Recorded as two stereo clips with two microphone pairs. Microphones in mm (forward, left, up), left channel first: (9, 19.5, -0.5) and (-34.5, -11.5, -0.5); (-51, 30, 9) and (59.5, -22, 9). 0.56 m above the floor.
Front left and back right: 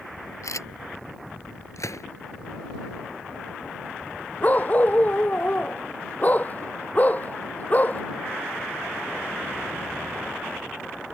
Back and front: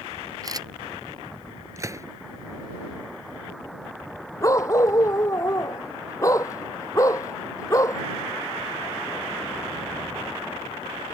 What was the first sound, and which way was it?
A camera shutter, 30° left.